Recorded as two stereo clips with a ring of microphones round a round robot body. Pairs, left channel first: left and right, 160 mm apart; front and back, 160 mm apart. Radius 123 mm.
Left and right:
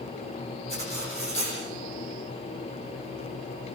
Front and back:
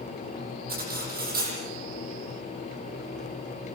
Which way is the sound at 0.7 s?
150° left.